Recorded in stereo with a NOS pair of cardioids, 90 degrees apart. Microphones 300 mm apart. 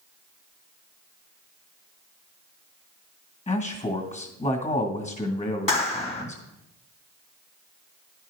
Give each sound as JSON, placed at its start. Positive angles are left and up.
{"t": 3.5, "sound": "a man speaking", "azimuth_deg": 25, "distance_m": 1.8}
{"t": 5.7, "sound": "a clap", "azimuth_deg": 20, "distance_m": 1.8}